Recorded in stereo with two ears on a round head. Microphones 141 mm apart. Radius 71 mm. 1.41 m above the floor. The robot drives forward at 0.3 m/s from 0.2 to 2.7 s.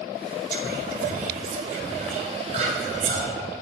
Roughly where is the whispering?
Right.